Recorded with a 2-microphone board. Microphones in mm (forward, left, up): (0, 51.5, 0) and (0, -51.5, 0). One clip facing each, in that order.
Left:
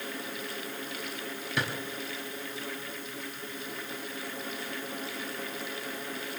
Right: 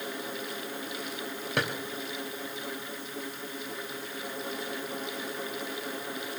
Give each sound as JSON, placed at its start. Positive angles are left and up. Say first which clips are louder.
{"t": 1.6, "sound": "a drawer", "louder": "right 2 dB", "side_deg": -60, "distance_m": 3.5}